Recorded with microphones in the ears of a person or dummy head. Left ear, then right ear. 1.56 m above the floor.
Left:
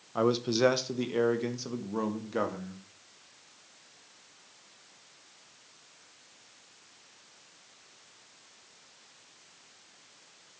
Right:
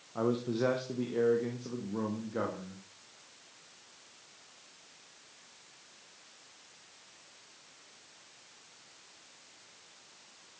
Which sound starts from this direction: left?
A man speaking, at 0.1 s.